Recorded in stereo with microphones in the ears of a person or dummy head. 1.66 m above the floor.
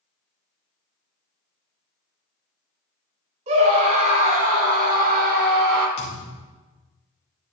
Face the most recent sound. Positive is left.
turn(degrees=30)  # may be behind; listen again after turning